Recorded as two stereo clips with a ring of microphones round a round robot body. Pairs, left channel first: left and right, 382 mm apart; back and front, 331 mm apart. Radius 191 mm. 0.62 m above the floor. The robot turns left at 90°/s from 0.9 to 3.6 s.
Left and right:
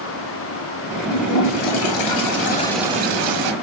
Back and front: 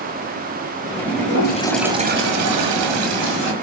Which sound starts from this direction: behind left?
A toilet flushing, at 1.1 s.